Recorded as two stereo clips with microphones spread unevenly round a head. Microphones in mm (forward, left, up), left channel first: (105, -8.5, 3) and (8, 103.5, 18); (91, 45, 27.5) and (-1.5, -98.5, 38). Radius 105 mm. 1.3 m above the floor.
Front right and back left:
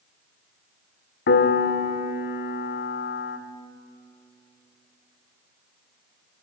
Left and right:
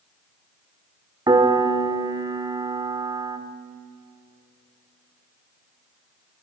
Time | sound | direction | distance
1.3 | a piano | 60° right | 1.7 m